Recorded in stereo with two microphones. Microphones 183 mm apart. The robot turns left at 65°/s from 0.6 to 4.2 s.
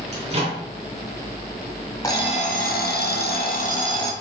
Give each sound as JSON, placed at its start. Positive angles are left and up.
{"t": 0.1, "sound": "a microwave", "side_deg": -35, "distance_m": 2.0}
{"t": 2.0, "sound": "an alarm clock", "azimuth_deg": 160, "distance_m": 0.6}